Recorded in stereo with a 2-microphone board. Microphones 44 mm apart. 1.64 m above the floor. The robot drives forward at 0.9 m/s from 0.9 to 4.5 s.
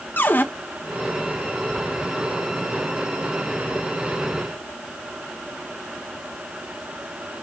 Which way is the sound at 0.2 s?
50° left (ahead or behind).